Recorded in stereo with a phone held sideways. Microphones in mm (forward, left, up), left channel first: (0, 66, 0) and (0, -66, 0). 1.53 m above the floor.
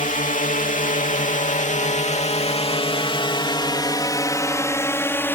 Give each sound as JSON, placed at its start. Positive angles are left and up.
{"t": 0.0, "sound": "a drone", "side_deg": 75}